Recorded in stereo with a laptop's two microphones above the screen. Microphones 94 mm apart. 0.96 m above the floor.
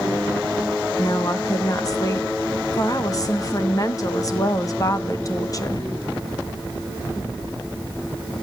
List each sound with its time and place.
1.0 s a woman speaking: 40° left (ahead or behind), 1.2 m